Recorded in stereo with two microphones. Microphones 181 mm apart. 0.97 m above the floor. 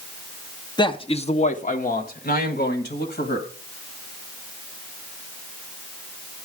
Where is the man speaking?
25° left (ahead or behind), 0.9 m; by 3.5 s 75° left (ahead or behind), 1.7 m.